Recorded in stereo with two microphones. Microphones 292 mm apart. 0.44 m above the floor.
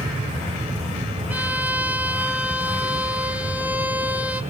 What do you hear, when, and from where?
1.3 s a violin: 5° right (ahead or behind), 2 m